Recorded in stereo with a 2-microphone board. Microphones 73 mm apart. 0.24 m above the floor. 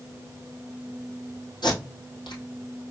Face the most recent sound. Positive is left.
turn(degrees=80)